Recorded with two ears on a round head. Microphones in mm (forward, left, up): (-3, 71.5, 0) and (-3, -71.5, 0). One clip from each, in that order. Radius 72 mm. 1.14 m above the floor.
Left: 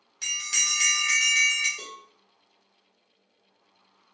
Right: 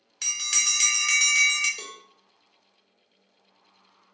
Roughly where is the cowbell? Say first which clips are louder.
Right 1 dB; right.